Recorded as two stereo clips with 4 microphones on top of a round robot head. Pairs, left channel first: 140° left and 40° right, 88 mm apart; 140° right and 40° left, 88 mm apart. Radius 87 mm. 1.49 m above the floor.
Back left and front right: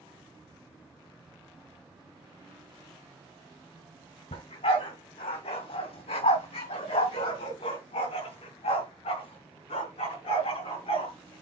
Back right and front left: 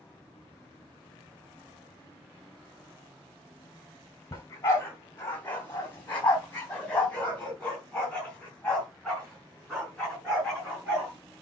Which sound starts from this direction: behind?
A dog barking, at 4.3 s.